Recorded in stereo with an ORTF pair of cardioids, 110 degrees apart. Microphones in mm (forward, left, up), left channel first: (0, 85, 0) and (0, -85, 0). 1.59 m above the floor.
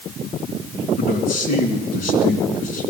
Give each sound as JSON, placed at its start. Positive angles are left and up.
{"t": 1.0, "sound": "a man speaking", "azimuth_deg": 55, "distance_m": 3.0}